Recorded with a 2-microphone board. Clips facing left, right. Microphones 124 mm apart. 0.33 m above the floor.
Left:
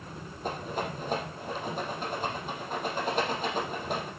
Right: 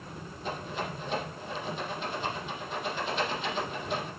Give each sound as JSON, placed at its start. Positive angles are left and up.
{"t": 0.4, "sound": "a rattle", "side_deg": 50, "distance_m": 4.0}